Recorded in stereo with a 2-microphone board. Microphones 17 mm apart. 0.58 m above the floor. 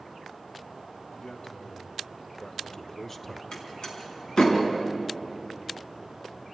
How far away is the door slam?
About 4.5 m.